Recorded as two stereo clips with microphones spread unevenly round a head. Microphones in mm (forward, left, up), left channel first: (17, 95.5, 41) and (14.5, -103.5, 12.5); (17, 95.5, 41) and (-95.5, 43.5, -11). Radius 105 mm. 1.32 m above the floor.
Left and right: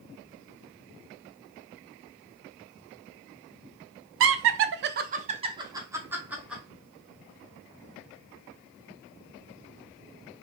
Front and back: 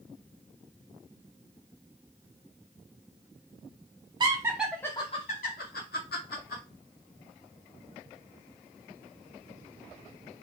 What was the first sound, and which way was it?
Laughter, 105° right.